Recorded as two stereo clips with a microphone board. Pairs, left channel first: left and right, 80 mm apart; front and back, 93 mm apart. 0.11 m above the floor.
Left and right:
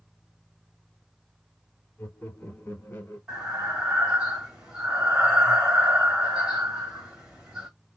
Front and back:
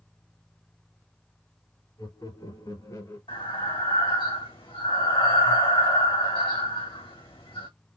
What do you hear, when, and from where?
2.0 s laughter: 20° left, 3 m; by 3.2 s 35° left, 2.5 m
3.3 s breathing: 10° right, 2.5 m